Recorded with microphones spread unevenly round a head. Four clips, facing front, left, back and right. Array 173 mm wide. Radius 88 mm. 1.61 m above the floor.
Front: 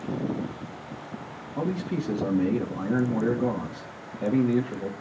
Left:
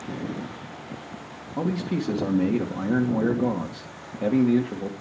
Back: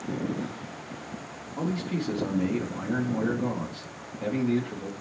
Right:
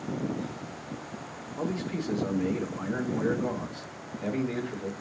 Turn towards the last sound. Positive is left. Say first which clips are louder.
# left 5 dB, front 1 dB
turn(degrees=75)